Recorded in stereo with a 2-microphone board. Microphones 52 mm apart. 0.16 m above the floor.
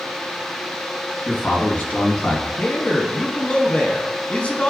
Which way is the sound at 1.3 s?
35° left (ahead or behind).